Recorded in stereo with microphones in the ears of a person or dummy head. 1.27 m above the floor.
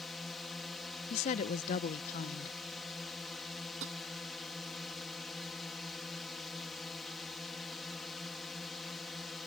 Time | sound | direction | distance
0.0 | a drone | centre (ahead or behind) | ?
1.1 | a woman speaking | 45° left (ahead or behind) | ?
3.8 | tapping | 70° right (ahead or behind) | ?